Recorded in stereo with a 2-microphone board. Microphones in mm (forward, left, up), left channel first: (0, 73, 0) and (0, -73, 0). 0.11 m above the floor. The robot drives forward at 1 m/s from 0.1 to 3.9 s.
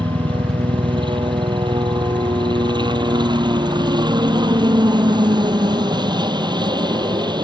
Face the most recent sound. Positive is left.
turn(degrees=-30)  # may be behind; listen again after turning